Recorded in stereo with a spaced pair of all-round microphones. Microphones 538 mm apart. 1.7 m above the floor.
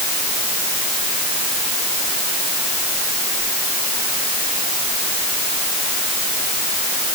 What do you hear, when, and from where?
Only background noise.